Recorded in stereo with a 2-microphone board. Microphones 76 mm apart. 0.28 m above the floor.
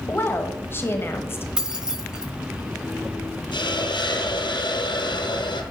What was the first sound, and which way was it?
A woman speaking, 30° left (ahead or behind).